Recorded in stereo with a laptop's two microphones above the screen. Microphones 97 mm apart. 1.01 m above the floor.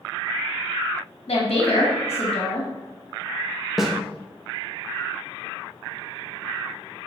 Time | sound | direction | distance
1.3 | a woman speaking | 70° left (ahead or behind) | 1.1 m
3.8 | a snare drum | centre (ahead or behind) | 0.6 m